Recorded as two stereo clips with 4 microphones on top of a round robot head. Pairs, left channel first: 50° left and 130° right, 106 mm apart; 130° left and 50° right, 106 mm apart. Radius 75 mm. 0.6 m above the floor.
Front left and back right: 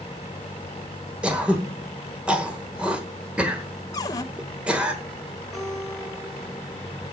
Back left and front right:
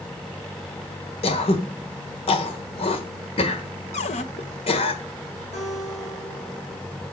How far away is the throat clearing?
About 1.3 m.